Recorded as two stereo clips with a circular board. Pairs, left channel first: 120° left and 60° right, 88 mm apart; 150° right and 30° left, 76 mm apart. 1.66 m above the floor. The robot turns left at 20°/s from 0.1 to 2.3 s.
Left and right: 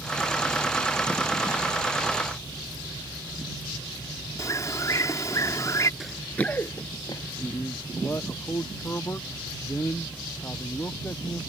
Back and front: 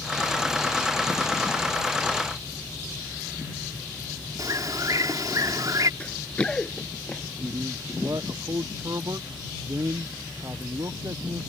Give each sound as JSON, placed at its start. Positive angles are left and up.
{"t": 4.4, "sound": "a bird", "azimuth_deg": 70}
{"t": 6.0, "sound": "running footsteps", "azimuth_deg": -135}
{"t": 7.4, "sound": "a man speaking", "azimuth_deg": 65}